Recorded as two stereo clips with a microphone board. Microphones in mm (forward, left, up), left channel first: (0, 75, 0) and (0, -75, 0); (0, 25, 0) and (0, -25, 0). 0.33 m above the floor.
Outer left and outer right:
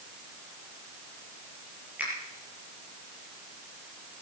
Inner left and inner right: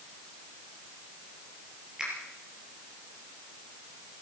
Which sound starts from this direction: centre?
A finger snap, at 2.0 s.